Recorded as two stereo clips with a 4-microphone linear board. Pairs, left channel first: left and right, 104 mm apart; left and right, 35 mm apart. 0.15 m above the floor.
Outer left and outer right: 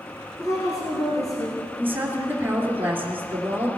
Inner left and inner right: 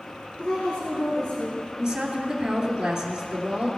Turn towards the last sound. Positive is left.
turn(degrees=-20)  # may be behind; listen again after turning